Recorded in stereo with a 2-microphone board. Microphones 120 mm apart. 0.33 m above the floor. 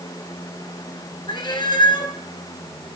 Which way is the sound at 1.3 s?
40° left (ahead or behind).